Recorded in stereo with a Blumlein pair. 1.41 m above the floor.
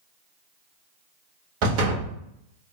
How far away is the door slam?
About 1.4 m.